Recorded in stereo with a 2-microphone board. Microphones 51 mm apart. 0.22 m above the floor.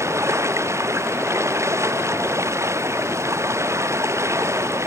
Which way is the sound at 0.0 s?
60° right (ahead or behind).